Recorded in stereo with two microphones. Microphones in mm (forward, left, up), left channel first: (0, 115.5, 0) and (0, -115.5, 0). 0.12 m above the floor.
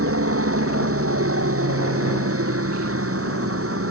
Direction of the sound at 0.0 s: 75° right (ahead or behind).